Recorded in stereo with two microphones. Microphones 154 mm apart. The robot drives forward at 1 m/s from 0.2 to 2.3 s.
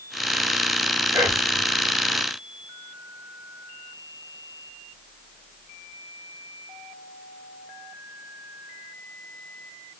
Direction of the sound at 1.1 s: 20° right (ahead or behind).